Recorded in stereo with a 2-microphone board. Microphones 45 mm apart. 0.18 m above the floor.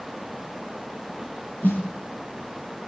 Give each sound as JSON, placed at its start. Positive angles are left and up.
{"t": 1.6, "sound": "a snare drum", "side_deg": 45, "distance_m": 7.0}